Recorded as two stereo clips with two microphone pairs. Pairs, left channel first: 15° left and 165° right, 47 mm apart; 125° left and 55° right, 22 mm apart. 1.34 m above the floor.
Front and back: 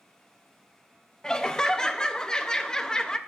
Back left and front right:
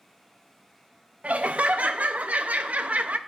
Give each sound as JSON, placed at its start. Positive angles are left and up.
{"t": 1.2, "sound": "laughter", "azimuth_deg": -65, "distance_m": 0.6}